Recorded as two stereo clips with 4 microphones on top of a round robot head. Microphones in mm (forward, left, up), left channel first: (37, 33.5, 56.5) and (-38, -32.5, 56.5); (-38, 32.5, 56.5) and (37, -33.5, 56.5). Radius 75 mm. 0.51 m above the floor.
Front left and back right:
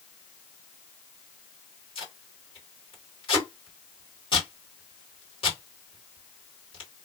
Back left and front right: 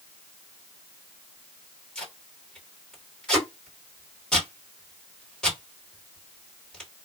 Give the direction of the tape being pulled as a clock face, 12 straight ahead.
10 o'clock.